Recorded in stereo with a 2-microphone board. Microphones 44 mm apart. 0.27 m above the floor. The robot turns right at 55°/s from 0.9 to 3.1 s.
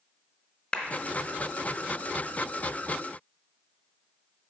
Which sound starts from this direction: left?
A clap, at 0.7 s.